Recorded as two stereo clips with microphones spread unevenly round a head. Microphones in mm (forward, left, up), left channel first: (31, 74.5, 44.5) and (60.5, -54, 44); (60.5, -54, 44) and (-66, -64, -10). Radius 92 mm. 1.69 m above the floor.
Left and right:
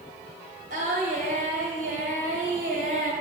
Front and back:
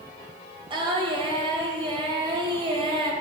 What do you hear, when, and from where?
0.7 s singing: 120° right, 2.0 m